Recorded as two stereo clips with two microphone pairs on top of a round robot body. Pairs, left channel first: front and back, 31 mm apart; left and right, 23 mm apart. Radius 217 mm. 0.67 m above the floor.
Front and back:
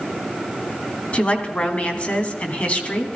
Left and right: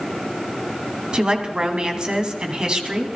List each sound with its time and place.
1.1 s a woman speaking: 35° right, 2.5 m